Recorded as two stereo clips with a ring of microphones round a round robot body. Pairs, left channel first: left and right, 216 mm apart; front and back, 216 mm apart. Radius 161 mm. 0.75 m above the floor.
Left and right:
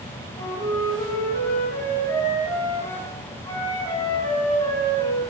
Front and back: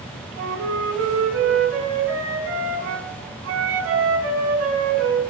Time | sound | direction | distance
0.4 | a flute | 170° left | 4.5 m